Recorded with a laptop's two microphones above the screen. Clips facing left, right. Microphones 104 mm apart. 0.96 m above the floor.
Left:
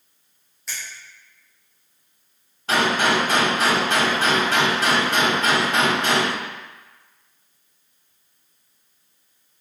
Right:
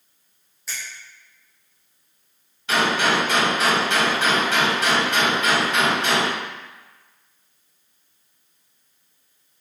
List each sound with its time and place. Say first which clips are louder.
0.7 s a finger snap: even; centre (ahead or behind), 1.0 m
2.7 s a gunshot: left 1 dB; 40° left (ahead or behind), 1.1 m